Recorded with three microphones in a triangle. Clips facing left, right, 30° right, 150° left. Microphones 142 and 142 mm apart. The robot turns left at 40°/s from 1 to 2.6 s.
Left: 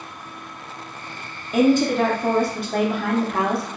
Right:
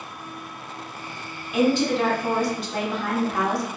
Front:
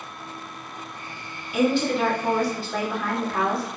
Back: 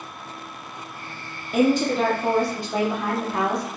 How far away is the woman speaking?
About 0.8 m.